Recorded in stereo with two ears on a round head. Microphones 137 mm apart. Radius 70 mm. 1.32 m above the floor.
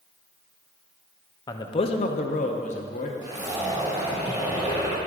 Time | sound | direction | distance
1.5 | a man speaking | 25° left (ahead or behind) | 0.5 m
3.2 | a zipper | 25° right (ahead or behind) | 1.4 m